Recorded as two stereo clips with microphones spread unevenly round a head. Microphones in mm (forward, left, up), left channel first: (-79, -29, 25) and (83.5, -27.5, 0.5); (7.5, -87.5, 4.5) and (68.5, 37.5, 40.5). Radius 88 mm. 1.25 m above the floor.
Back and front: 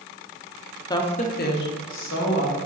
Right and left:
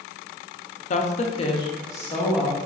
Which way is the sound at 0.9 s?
110° right.